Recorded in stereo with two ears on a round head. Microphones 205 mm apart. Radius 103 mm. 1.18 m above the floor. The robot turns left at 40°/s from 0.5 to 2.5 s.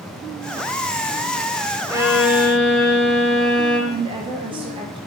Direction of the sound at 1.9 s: 15° right (ahead or behind).